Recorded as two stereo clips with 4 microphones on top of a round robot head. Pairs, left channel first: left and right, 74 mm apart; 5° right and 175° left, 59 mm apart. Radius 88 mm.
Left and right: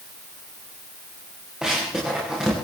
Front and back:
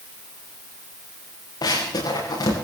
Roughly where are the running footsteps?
Ahead.